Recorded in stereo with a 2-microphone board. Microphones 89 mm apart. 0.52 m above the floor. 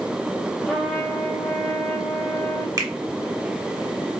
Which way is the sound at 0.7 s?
10° left (ahead or behind).